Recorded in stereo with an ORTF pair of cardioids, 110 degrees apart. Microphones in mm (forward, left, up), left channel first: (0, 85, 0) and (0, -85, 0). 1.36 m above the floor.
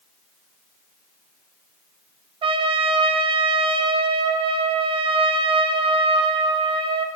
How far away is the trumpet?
About 0.7 m.